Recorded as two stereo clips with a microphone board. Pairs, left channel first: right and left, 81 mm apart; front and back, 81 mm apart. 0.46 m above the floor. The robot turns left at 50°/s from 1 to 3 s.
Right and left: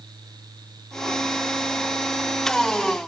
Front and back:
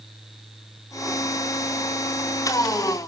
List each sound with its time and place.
Only background noise.